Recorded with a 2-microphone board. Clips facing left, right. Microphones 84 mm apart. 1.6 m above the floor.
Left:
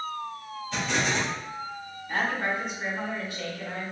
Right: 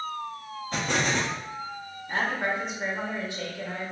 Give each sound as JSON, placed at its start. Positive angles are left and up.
{"t": 0.7, "sound": "an explosion", "side_deg": -45, "distance_m": 1.4}
{"t": 2.1, "sound": "a woman speaking", "side_deg": -20, "distance_m": 1.4}